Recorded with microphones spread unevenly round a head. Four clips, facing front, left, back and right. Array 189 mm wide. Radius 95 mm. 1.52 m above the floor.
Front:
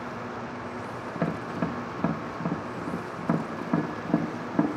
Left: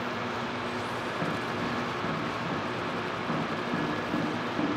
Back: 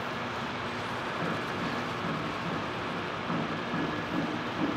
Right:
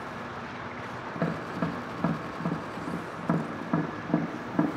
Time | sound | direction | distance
1.1 | tapping | 25° right | 0.7 m